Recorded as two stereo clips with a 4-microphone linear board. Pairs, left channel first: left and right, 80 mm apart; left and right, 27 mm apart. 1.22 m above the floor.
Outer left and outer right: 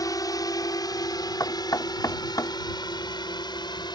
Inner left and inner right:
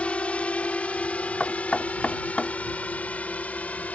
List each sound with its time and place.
0.0 s a drone: 50° left (ahead or behind); by 3.9 s 65° left (ahead or behind)
1.4 s knocking: 50° left (ahead or behind)